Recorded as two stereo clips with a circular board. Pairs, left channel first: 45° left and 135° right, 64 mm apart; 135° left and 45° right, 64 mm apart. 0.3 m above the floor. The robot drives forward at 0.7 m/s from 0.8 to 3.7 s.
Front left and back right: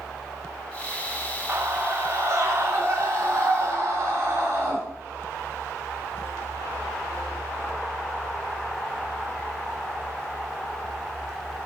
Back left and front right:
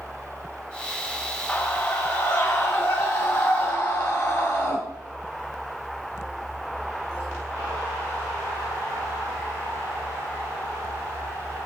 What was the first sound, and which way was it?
A scream, 170° right.